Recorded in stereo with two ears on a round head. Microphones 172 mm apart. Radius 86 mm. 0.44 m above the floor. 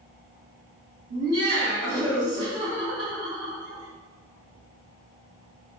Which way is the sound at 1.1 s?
70° right (ahead or behind).